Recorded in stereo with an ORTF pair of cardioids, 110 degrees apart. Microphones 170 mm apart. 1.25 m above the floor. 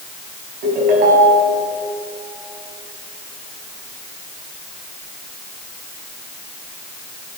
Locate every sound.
0.6 s a ringtone: 60° right, 6.5 m